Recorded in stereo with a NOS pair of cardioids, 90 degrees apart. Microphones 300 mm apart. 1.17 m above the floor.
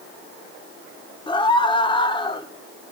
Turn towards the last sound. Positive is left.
turn(degrees=15)